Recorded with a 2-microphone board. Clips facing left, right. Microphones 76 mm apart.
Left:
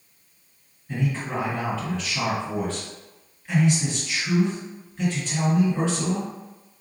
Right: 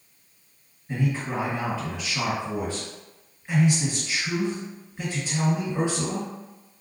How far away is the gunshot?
I don't hear a gunshot.